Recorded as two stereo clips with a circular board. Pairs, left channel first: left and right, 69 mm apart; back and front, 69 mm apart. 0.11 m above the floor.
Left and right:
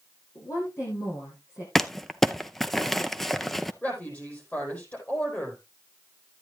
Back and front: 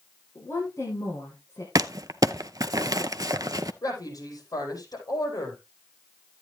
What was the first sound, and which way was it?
A woman speaking, 130° left.